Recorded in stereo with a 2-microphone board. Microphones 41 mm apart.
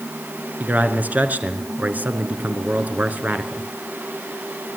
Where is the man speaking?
45° right (ahead or behind), 3.5 m.